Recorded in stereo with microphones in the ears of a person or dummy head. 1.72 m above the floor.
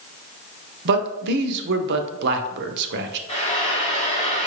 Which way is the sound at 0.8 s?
65° right (ahead or behind).